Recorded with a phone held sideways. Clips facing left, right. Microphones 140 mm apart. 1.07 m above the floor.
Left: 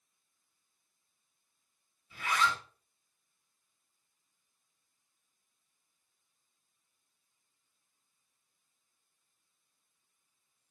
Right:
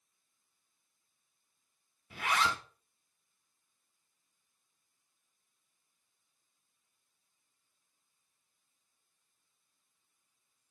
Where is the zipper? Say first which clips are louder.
Even; 80° right, 1.1 m.